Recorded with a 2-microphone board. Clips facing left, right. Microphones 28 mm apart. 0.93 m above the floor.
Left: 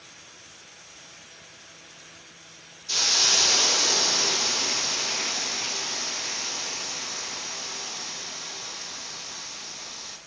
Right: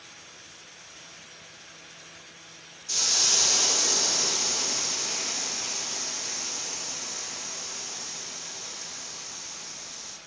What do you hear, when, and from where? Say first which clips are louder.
2.9 s a hiss: left 4 dB; 30° left (ahead or behind), 0.5 m